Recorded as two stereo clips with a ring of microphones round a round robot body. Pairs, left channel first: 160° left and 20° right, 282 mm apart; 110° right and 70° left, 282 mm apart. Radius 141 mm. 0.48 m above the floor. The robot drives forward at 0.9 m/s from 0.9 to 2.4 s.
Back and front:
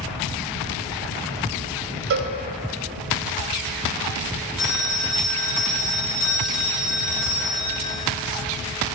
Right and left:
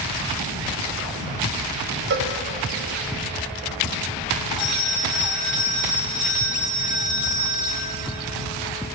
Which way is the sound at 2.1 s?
20° left.